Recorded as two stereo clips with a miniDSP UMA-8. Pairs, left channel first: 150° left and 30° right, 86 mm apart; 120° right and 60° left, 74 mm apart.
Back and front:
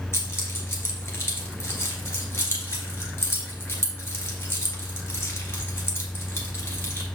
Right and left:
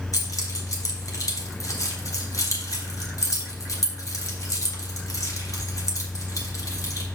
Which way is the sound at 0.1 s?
150° right.